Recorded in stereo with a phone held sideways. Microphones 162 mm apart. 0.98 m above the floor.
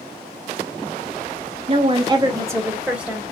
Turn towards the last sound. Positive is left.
turn(degrees=-5)  # may be behind; listen again after turning